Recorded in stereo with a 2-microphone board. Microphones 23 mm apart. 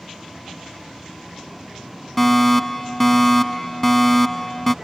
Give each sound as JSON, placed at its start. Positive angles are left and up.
{"t": 0.0, "sound": "a vehicle", "side_deg": -5}
{"t": 2.2, "sound": "a fire alarm", "side_deg": 10}